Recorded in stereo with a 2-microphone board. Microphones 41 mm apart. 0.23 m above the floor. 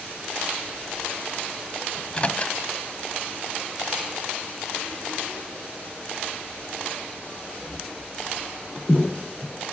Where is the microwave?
30° left (ahead or behind), 1.0 m.